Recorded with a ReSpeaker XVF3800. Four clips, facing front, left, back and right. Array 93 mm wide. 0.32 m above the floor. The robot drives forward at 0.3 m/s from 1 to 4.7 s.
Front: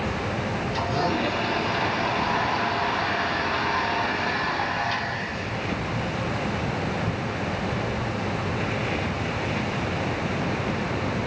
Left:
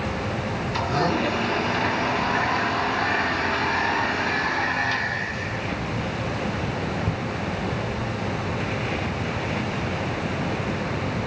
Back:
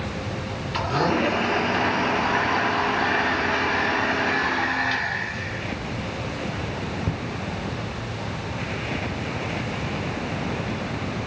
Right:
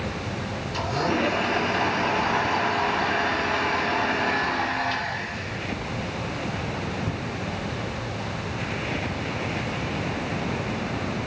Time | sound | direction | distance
0.7 | a blender | 150° left | 3 m